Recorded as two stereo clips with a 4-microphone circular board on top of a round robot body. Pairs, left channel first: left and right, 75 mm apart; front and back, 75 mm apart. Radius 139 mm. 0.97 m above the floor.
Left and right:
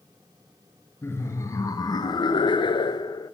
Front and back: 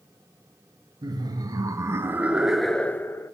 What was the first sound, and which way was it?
Laughter, 145° left.